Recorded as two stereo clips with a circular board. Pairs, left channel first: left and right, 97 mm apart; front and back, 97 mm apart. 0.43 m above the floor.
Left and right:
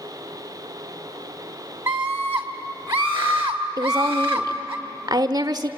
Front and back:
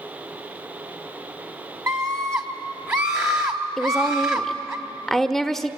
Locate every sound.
1.9 s a scream: 140° right, 1.3 m
3.8 s a woman speaking: 85° right, 1.0 m